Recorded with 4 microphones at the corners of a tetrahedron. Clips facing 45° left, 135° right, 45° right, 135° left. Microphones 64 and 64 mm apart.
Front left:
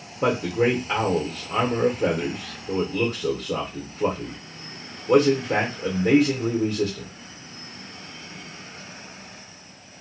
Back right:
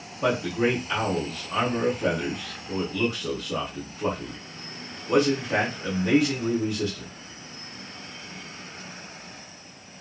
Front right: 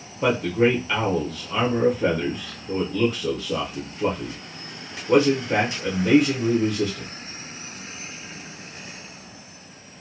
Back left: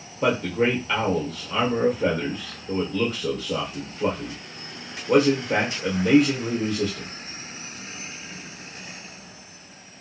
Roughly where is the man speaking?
Ahead left.